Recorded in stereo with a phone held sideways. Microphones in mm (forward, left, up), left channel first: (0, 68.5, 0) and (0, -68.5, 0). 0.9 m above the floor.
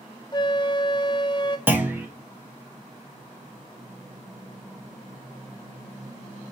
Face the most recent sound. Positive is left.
turn(degrees=-15)  # may be behind; listen again after turning